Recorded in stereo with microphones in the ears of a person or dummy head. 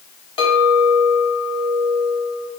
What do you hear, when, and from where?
0.4 s a clink: 25° left (ahead or behind), 1.2 m